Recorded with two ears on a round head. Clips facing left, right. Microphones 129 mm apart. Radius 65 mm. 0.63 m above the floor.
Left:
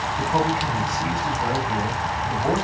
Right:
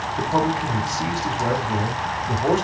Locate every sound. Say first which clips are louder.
0.2 s a man speaking: right 2 dB; 40° right (ahead or behind), 1.3 m